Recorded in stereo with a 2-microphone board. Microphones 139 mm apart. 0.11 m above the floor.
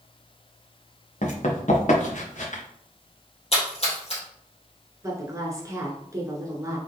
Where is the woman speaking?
25° right (ahead or behind), 1.2 m.